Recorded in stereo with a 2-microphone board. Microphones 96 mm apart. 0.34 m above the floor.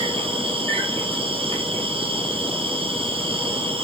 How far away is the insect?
About 1.0 m.